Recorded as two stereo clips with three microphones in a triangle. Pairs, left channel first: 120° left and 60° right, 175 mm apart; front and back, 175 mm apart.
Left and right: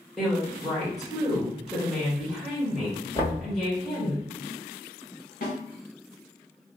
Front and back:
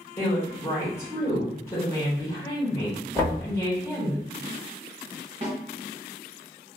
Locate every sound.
0.2 s a woman speaking: 35° left, 1.3 m
3.1 s knocking: 65° left, 1.3 m
5.4 s a snare drum: 135° left, 1.1 m